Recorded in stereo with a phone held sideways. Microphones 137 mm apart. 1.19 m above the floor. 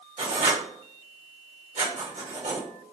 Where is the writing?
65° right (ahead or behind), 1.6 m.